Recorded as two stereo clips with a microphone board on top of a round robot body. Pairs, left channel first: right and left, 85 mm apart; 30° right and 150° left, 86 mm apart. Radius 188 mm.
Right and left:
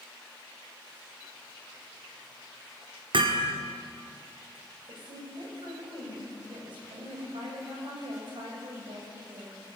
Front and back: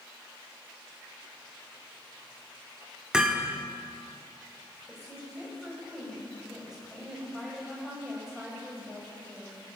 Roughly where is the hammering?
Left.